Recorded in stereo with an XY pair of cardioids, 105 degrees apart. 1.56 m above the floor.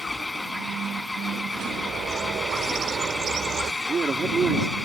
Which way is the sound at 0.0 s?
15° left.